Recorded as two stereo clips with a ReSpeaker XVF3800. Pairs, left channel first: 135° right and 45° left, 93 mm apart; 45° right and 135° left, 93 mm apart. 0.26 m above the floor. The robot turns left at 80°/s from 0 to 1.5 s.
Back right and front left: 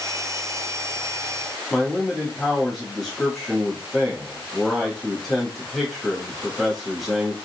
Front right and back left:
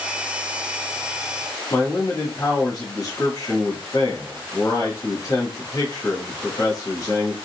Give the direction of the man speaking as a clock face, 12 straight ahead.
2 o'clock.